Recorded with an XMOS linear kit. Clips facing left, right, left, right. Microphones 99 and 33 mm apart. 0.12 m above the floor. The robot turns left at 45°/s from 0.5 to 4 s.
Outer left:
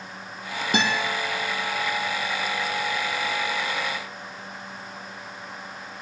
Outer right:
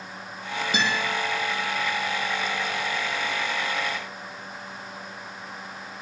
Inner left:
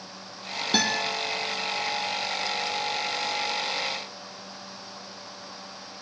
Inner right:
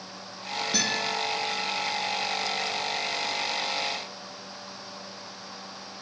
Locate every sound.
0.7 s a guitar: 55° left (ahead or behind), 1.9 m; by 1.0 s 45° left (ahead or behind), 1.9 m